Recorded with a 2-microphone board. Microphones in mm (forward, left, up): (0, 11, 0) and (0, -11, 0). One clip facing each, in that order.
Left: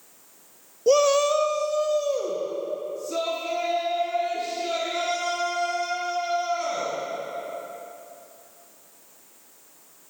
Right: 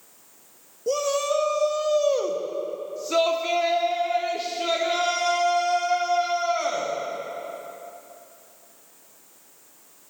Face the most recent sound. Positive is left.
turn(degrees=-55)  # may be behind; listen again after turning